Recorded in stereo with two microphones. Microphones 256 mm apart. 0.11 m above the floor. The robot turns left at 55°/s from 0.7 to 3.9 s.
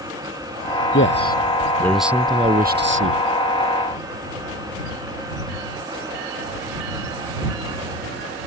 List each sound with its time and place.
0.9 s a man speaking: 55° left; by 3.2 s 65° right